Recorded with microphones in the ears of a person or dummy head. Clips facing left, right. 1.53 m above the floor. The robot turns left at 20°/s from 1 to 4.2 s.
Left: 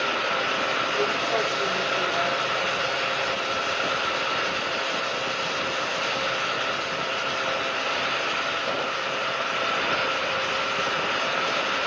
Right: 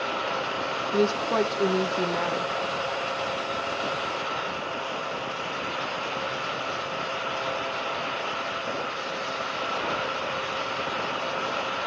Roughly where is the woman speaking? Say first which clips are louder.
Right 5 dB; right.